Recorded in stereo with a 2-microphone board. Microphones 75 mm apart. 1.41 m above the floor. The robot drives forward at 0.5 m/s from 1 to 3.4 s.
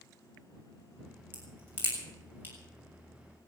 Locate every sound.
1.3 s a crack: 30° right (ahead or behind), 7 m; by 2.5 s 25° right (ahead or behind), 7.5 m